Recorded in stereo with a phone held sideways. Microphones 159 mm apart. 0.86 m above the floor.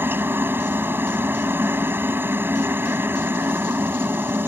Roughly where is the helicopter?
Centre.